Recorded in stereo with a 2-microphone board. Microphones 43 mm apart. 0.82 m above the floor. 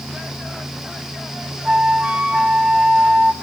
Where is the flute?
25° right (ahead or behind), 0.8 m.